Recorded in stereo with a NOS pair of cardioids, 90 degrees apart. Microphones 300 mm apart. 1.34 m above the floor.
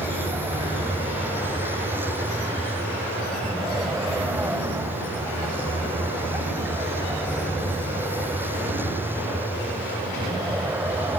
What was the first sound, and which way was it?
A vehicle, 5° right.